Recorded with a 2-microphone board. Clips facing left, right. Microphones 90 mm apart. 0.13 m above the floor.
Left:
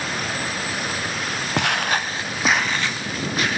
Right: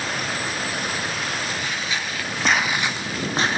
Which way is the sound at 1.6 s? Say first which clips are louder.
Left 6 dB; 75° left (ahead or behind).